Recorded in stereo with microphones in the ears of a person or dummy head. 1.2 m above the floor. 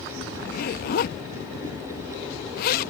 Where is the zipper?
55° left (ahead or behind).